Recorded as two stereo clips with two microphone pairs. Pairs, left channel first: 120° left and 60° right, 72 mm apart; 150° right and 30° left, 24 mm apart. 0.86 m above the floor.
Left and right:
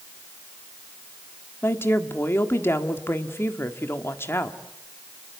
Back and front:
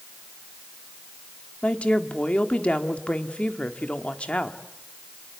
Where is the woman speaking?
175° left, 1.6 m.